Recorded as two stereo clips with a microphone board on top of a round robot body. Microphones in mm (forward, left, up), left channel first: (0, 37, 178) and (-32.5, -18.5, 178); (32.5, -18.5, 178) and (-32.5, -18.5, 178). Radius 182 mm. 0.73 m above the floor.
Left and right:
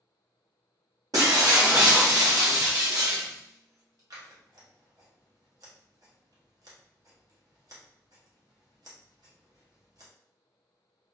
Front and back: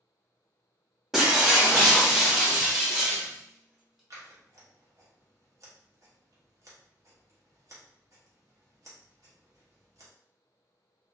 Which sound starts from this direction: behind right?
Scissors, at 4.1 s.